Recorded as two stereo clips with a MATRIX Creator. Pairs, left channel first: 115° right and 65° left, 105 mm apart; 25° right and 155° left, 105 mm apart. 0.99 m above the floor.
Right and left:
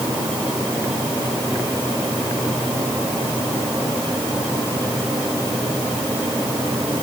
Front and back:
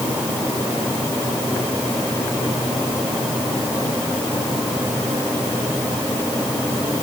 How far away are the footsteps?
No footsteps in this recording.